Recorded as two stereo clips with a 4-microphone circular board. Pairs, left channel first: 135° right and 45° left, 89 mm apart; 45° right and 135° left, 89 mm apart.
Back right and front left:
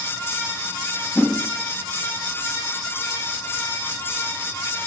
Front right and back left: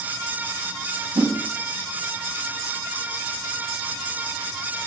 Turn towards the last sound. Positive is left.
turn(degrees=145)